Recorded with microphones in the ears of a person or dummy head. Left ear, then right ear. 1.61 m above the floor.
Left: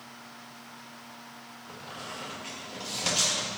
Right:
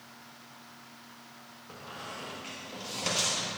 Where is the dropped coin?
No dropped coin in this recording.